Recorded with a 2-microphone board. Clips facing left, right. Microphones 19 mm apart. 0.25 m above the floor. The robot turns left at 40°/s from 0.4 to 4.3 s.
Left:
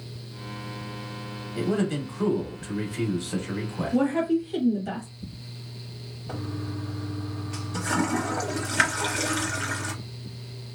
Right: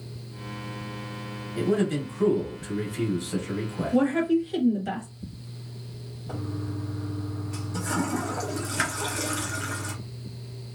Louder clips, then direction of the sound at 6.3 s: Even; 30° left (ahead or behind).